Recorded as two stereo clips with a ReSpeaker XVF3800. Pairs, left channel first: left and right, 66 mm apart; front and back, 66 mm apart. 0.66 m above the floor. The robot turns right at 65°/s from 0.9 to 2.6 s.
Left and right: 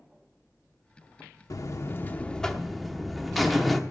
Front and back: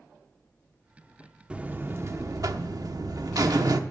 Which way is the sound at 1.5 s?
110° left.